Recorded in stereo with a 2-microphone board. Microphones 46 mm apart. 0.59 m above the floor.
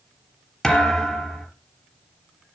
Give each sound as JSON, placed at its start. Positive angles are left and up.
{"t": 0.6, "sound": "a thud", "side_deg": 10, "distance_m": 4.0}